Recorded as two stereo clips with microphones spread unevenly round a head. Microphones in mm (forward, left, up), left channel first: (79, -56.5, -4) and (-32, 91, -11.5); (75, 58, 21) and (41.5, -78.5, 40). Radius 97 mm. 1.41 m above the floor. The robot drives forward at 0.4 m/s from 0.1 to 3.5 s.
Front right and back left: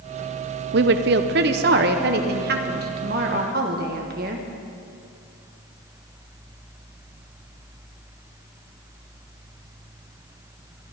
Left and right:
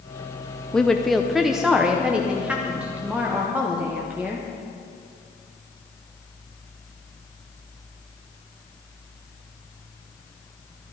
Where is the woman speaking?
160° left, 0.5 m; by 4.5 s 175° left, 1.6 m.